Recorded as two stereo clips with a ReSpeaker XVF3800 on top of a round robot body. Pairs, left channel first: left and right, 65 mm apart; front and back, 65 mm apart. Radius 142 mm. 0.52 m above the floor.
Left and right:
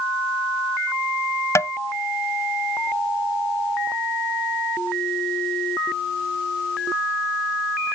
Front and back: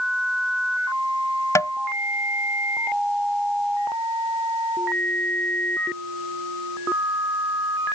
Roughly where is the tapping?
Ahead left.